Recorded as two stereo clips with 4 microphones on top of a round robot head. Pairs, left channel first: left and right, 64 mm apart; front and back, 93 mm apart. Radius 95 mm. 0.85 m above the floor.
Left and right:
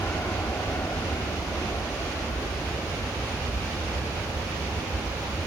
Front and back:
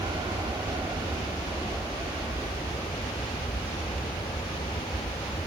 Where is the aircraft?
140° left; by 5.5 s 95° left.